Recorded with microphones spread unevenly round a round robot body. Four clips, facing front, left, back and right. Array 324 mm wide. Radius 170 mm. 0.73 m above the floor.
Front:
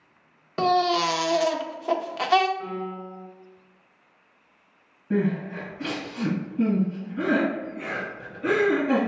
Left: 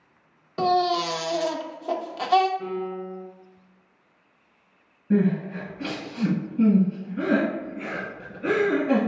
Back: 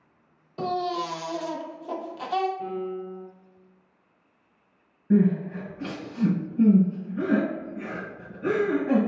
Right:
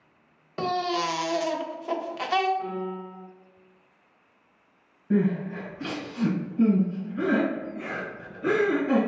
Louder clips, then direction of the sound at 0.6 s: Left 5 dB, front 6 dB; straight ahead.